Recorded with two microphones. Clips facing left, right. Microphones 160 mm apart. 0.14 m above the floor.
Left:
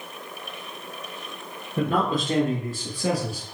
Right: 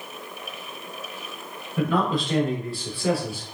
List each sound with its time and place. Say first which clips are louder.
1.8 s a man speaking: even; 45° left (ahead or behind), 2.5 m; by 3.5 s 40° left (ahead or behind), 2 m